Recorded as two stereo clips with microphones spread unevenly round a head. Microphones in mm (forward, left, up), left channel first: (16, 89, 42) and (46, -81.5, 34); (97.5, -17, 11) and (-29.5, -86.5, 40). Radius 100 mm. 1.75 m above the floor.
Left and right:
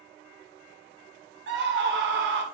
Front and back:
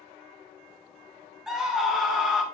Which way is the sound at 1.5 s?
65° right.